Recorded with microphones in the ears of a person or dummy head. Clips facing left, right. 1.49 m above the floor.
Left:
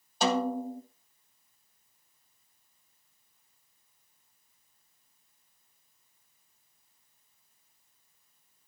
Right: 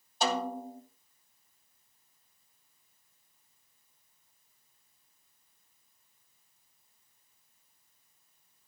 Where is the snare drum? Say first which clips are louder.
Left 4 dB; 60° left (ahead or behind), 1.5 m.